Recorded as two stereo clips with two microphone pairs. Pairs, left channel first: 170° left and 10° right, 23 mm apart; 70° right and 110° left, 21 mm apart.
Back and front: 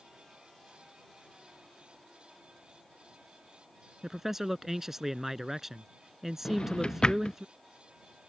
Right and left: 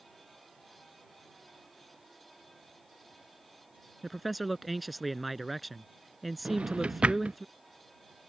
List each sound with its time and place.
4.0 s a man speaking: 30° left
6.5 s a drawer: 120° left